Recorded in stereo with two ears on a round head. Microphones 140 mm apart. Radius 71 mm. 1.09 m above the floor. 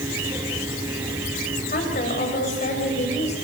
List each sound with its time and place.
1.7 s a woman speaking: 55° left (ahead or behind), 6.5 m; by 3.4 s 45° left (ahead or behind), 6.5 m